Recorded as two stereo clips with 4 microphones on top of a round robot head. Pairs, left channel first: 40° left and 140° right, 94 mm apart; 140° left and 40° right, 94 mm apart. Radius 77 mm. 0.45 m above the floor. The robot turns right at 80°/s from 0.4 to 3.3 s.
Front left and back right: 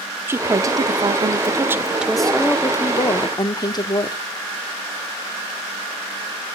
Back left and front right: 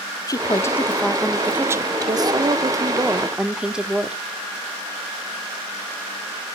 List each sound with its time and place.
0.3 s a woman speaking: 170° left, 1.2 m; by 4.2 s 40° left, 1.2 m